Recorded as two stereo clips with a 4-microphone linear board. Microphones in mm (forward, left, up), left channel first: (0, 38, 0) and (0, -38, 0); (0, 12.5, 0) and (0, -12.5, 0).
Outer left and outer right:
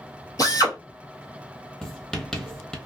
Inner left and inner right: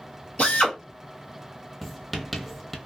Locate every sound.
0.4 s a drill: 60° left (ahead or behind), 1.5 m
1.8 s writing: 5° left (ahead or behind), 0.8 m